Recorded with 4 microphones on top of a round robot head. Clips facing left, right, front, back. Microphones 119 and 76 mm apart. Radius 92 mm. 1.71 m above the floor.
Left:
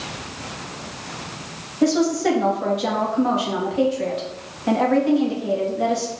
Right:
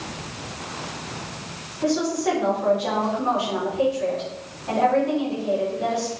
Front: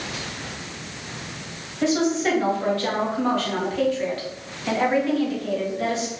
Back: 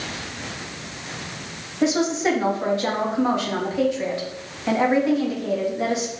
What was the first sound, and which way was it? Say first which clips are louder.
A woman speaking: left 4 dB, back 1 dB; 105° left.